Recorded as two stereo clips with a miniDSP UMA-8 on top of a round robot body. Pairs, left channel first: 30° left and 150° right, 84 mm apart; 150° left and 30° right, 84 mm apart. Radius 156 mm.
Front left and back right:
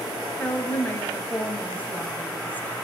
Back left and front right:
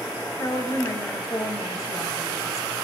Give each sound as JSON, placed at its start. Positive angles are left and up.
{"t": 0.4, "sound": "a woman speaking", "azimuth_deg": 100, "distance_m": 3.0}